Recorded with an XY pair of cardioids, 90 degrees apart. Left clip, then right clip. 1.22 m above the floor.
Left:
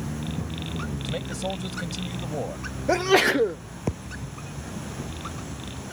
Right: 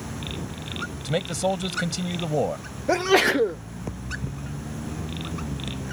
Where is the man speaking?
50° right.